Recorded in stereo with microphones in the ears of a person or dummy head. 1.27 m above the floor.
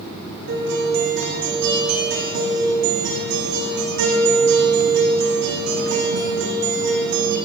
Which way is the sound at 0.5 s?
60° right (ahead or behind).